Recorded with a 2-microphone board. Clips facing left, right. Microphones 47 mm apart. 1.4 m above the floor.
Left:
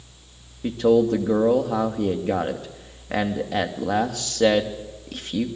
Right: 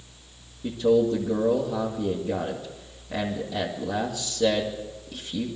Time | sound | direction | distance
0.6 | a man speaking | 70° left (ahead or behind) | 2.5 m